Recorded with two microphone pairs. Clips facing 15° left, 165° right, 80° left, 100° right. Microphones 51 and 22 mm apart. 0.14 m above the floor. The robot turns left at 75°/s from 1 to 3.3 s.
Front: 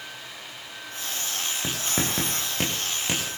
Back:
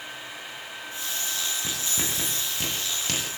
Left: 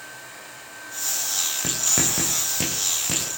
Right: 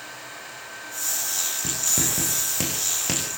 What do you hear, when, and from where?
1.6 s writing: 50° left, 9 m; by 3.4 s 75° right, 9 m